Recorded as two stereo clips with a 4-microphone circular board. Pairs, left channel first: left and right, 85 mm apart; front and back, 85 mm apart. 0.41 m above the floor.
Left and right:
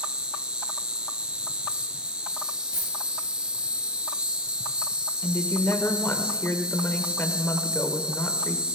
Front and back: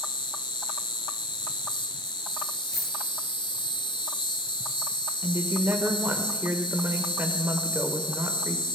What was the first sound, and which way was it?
An insect, 10° right.